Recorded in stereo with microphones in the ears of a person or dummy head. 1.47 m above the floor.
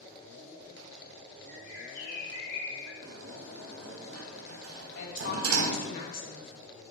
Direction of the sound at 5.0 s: 55° left (ahead or behind).